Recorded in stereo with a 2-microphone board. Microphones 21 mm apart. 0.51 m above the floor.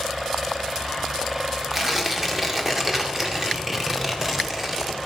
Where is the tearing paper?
10° right (ahead or behind), 1.7 m.